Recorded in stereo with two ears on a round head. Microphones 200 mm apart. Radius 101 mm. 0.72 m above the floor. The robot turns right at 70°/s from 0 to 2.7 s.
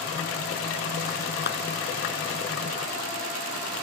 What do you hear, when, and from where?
1.5 s a clap: 50° left (ahead or behind); by 1.6 s 45° left (ahead or behind)